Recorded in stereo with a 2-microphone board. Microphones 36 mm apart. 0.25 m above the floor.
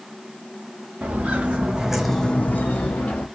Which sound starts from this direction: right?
Footsteps, at 1.0 s.